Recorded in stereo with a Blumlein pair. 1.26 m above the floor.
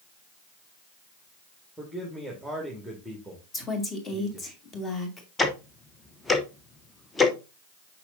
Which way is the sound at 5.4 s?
10° left.